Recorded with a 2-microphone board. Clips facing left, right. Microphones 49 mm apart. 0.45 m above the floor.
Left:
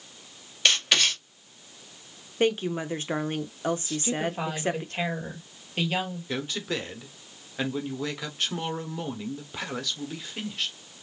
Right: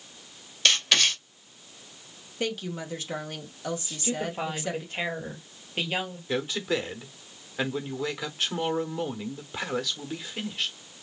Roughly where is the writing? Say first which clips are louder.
Even; centre.